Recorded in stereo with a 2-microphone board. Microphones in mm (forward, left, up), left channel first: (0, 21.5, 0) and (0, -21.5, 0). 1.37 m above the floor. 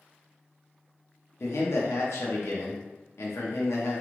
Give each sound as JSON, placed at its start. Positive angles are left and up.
{"t": 1.4, "sound": "a man speaking", "side_deg": 75, "distance_m": 0.7}